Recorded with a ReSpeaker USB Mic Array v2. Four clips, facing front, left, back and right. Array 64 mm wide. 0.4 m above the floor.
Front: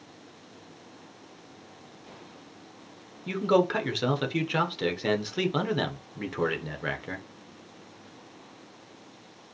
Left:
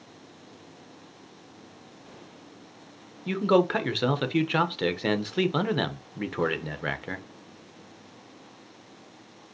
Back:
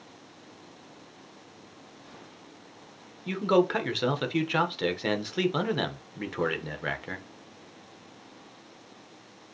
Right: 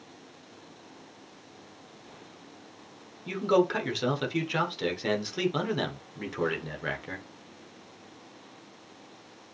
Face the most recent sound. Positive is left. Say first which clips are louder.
# left 2 dB, even
turn(degrees=100)